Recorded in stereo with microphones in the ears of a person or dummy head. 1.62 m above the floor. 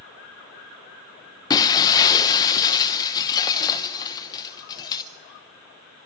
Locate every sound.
1.5 s breaking glass: 20° left (ahead or behind), 0.8 m